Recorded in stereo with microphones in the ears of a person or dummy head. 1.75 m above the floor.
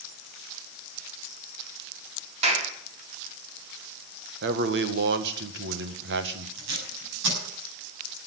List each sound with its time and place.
2.4 s a clap: 40° right (ahead or behind), 3.5 m
4.4 s a man speaking: 65° right (ahead or behind), 1.9 m
6.6 s tape being pulled: 70° right (ahead or behind), 9 m